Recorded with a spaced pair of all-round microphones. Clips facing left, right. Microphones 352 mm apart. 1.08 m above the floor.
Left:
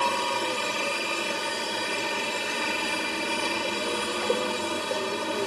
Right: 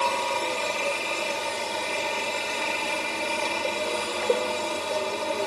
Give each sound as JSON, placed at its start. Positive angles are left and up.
{"t": 0.0, "sound": "a helicopter", "side_deg": 25}